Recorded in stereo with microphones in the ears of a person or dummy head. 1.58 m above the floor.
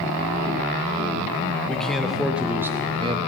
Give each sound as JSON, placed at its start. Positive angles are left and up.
{"t": 1.7, "sound": "a man speaking", "side_deg": 5, "distance_m": 1.4}